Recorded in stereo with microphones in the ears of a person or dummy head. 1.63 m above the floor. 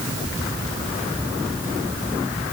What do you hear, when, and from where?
Only background noise.